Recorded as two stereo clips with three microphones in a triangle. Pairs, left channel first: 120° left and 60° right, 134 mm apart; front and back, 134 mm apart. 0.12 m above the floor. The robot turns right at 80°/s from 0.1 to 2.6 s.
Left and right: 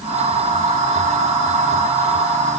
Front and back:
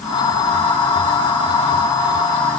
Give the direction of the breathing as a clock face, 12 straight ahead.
No breathing in this recording.